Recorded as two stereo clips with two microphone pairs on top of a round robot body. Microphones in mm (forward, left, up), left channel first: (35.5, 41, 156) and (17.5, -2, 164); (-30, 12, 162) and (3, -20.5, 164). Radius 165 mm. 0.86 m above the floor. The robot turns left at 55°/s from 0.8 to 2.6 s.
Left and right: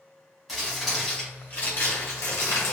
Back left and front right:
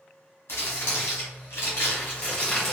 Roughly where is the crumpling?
Behind left.